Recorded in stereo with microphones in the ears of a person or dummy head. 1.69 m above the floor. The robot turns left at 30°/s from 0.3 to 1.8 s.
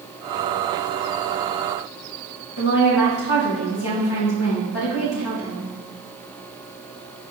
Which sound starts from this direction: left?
A woman speaking, at 2.6 s.